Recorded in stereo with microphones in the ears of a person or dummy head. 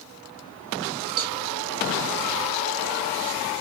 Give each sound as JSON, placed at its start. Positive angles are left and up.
{"t": 1.2, "sound": "a cowbell", "side_deg": -55, "distance_m": 1.0}